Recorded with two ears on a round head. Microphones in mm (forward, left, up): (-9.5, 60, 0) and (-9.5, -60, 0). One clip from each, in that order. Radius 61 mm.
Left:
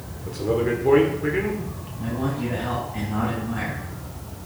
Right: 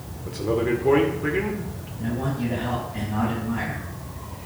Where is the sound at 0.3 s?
Centre (ahead or behind), 1.8 m.